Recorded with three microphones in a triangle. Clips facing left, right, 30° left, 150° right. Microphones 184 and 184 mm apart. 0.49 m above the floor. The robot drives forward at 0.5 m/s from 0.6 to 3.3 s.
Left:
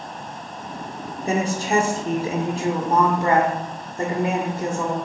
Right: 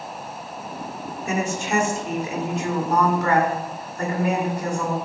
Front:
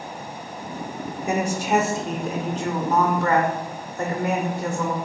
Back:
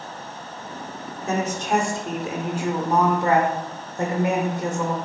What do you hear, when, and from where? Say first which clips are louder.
1.2 s a woman speaking: left 3 dB, front 1 dB; 90° left, 1.2 m; by 5.0 s 145° left, 1.6 m